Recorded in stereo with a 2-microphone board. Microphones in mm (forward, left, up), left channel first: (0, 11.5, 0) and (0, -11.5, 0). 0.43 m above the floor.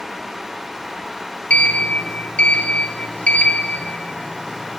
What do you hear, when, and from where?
1.5 s a sliding door: 70° left (ahead or behind), 3 m